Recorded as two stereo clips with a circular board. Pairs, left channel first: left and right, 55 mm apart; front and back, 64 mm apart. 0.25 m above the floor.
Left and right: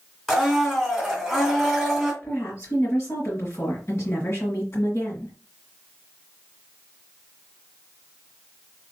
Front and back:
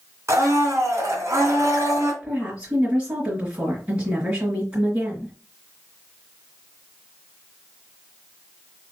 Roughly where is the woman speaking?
Behind left.